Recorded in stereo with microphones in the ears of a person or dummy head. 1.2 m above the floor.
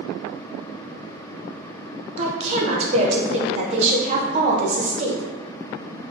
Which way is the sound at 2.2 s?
35° right (ahead or behind).